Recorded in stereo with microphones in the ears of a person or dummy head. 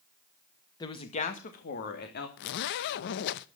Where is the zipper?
60° left (ahead or behind), 0.6 m.